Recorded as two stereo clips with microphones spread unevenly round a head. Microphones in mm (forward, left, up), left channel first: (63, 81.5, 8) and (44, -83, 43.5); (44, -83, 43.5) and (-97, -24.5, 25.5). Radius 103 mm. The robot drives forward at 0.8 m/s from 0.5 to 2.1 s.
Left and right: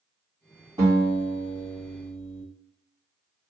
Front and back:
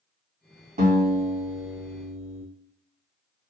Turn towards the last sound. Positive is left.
turn(degrees=-175)